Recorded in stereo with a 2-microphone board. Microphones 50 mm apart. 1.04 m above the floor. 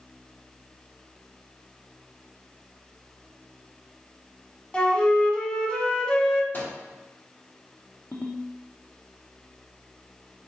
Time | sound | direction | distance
4.7 | a flute | 20° left (ahead or behind) | 1.1 m
6.5 | a microwave | 35° left (ahead or behind) | 2 m
8.1 | a ringtone | 50° left (ahead or behind) | 1.0 m